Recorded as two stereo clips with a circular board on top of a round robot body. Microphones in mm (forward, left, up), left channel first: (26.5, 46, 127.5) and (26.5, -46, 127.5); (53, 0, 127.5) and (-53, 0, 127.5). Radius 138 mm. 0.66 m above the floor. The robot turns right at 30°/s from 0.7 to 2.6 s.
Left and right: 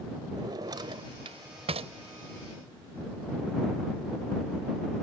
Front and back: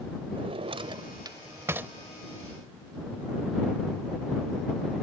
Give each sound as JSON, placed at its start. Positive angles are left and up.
{"t": 0.3, "sound": "a drawer", "azimuth_deg": -140}